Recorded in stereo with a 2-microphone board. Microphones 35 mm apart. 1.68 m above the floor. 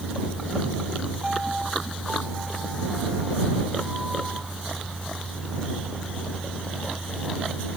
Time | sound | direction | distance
1.2 | a piano | 10° right (ahead or behind) | ?